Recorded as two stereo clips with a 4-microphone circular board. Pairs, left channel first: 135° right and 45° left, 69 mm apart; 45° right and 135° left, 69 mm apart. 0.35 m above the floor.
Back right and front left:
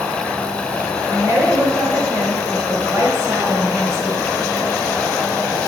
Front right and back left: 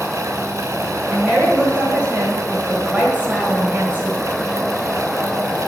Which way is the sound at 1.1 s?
70° left.